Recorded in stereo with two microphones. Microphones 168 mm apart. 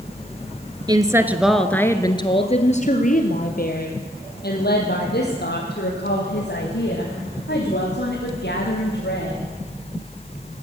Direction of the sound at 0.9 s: 25° right (ahead or behind).